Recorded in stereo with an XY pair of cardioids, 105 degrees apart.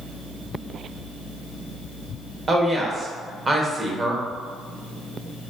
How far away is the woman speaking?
About 0.9 m.